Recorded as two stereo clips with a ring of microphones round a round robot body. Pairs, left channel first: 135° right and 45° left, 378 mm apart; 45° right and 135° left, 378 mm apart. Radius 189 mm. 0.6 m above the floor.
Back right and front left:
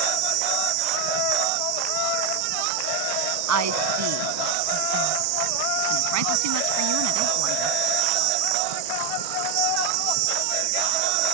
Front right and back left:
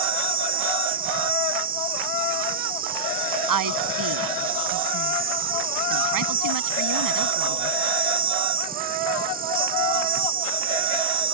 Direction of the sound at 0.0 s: 65° left.